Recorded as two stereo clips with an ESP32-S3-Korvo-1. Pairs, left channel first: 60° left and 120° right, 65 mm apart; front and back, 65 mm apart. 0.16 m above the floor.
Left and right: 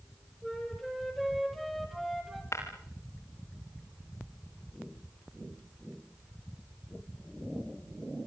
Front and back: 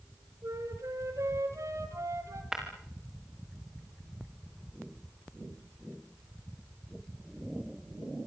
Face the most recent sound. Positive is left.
turn(degrees=100)